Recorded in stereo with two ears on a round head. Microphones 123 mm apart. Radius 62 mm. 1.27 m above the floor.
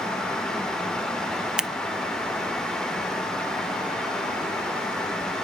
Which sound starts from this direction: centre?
Scissors, at 1.6 s.